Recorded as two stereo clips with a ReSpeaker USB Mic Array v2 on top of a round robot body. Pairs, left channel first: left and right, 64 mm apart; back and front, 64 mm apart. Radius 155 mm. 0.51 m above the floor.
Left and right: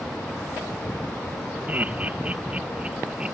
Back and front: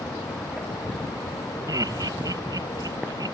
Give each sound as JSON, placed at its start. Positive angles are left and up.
{"t": 1.7, "sound": "laughter", "azimuth_deg": -25}